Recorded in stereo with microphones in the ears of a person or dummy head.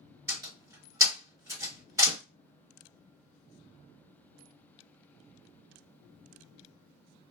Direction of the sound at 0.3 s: 15° right (ahead or behind).